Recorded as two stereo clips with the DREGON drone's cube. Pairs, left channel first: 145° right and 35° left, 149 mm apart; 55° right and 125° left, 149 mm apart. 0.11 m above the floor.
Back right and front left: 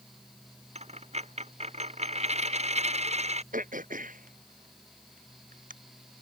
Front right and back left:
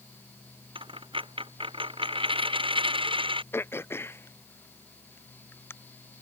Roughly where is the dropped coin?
Left.